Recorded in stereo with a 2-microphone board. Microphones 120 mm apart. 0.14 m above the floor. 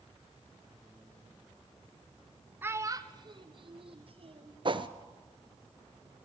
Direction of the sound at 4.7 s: 45° right (ahead or behind).